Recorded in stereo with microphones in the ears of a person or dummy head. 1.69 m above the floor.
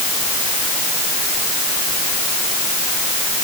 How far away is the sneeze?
No sneeze in this recording.